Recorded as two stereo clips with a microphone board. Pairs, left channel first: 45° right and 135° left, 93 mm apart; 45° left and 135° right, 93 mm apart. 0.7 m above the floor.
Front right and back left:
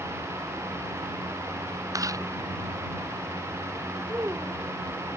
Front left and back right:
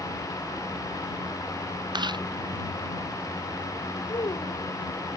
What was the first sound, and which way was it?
Chewing, 175° right.